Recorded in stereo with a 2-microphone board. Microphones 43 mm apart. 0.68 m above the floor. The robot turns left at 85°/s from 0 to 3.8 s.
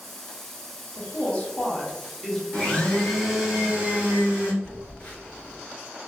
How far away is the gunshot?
I don't hear a gunshot.